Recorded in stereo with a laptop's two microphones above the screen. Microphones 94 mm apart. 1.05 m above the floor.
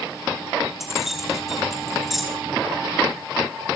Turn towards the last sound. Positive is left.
turn(degrees=-5)  # may be behind; listen again after turning